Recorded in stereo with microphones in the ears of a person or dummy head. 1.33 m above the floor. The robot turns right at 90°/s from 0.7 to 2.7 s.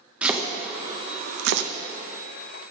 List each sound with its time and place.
0.2 s chopping: centre (ahead or behind), 0.7 m; by 1.7 s 65° right (ahead or behind), 0.7 m